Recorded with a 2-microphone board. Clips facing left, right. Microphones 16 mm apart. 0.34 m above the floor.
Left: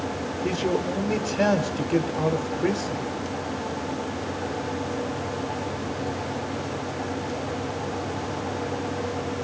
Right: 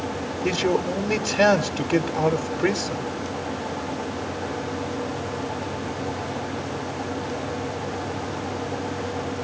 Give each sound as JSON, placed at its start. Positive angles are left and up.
{"t": 0.4, "sound": "a man speaking", "side_deg": -25, "distance_m": 0.9}